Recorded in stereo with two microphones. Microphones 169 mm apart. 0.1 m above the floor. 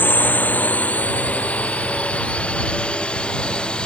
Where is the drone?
10° left (ahead or behind); by 3.9 s 5° left (ahead or behind).